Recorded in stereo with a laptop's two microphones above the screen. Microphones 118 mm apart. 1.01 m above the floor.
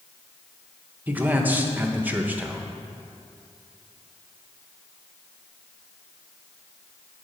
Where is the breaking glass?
I don't hear breaking glass.